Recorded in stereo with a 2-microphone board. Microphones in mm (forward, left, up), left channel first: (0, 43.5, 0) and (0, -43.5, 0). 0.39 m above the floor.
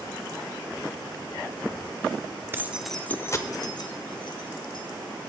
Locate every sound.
2.5 s keys jangling: 25° right (ahead or behind), 0.7 m; by 4.8 s 70° left (ahead or behind), 1.8 m